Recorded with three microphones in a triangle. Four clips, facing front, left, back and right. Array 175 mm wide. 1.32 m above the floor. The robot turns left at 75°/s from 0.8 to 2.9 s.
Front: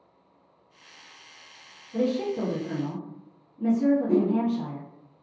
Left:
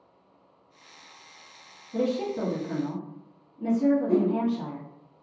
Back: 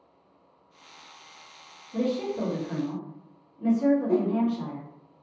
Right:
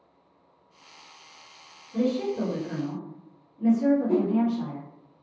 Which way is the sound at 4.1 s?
15° right.